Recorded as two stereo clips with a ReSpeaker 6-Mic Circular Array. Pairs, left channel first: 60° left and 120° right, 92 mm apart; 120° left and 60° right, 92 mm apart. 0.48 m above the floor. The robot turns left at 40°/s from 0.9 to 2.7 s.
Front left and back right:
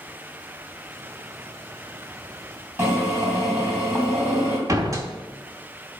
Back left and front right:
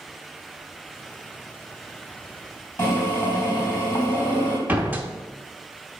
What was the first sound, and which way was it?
A drill, 175° right.